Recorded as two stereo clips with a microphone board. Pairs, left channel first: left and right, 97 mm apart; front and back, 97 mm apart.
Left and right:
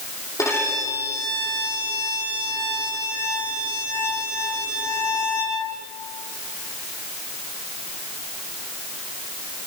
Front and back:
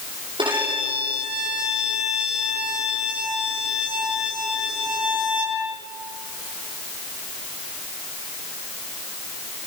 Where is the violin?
150° left, 7.5 m.